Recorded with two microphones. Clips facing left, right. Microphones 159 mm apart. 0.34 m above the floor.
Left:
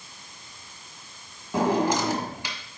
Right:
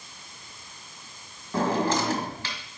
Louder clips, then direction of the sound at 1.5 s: Left 2 dB; 15° left (ahead or behind).